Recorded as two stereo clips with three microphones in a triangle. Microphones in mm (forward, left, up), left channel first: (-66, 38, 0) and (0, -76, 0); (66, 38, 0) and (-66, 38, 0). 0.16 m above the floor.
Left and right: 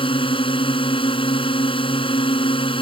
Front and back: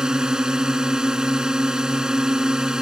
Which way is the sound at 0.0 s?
100° left.